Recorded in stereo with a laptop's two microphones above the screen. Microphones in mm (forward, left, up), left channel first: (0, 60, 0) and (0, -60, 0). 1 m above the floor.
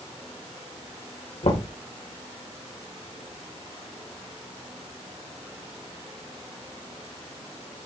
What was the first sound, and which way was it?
Knocking, 70° left (ahead or behind).